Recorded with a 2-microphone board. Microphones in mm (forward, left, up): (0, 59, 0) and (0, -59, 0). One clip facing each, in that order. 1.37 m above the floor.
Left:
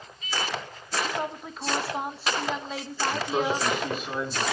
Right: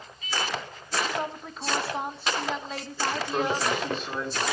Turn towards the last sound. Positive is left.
turn(degrees=5)  # may be behind; listen again after turning